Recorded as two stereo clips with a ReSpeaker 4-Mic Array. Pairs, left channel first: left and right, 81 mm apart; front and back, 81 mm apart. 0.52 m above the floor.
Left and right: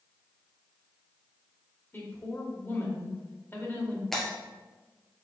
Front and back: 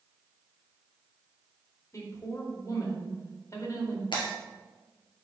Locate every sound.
1.9 s a woman speaking: 30° left, 1.9 m
4.1 s breaking glass: 5° left, 1.9 m